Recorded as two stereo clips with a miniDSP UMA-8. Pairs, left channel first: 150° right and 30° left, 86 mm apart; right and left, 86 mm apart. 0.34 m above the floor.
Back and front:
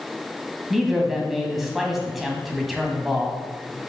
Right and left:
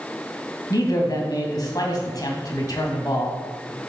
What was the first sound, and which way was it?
A man speaking, 60° right.